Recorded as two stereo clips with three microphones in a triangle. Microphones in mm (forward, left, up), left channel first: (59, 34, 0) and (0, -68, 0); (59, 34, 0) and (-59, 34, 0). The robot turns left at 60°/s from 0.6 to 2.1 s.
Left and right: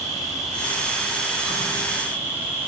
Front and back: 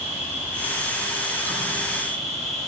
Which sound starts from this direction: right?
An insect, at 0.0 s.